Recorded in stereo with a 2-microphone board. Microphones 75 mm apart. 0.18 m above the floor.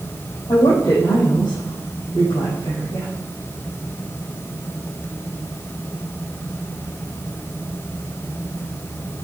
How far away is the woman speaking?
About 4.5 m.